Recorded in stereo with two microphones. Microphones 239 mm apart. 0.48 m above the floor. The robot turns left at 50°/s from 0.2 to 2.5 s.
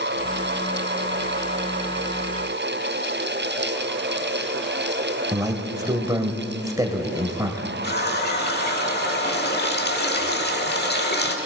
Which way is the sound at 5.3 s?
15° right (ahead or behind).